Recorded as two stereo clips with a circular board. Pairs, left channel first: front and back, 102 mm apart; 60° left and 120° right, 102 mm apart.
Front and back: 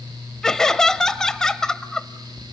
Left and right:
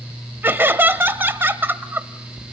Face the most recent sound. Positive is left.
turn(degrees=-80)